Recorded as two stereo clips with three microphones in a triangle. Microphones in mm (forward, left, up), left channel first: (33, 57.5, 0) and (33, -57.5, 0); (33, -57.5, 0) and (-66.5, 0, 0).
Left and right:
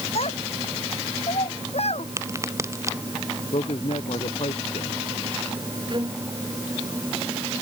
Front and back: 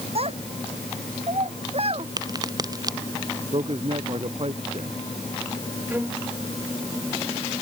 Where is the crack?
155° right.